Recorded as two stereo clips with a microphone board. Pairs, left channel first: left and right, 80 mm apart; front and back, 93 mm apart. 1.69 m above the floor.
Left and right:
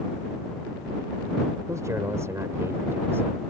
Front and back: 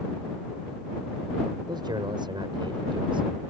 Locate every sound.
1.7 s a man speaking: 140° right; by 3.4 s 150° right